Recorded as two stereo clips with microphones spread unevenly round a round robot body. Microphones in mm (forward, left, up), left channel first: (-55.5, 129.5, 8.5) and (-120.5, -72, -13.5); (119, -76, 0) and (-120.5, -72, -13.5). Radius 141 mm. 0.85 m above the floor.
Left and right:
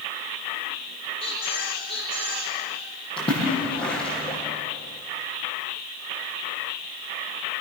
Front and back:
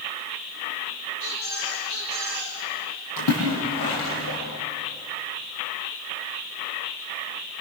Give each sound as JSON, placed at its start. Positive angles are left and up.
{"t": 1.2, "sound": "a squeak", "azimuth_deg": 25, "distance_m": 10.0}
{"t": 3.2, "sound": "a splash", "azimuth_deg": 0, "distance_m": 8.0}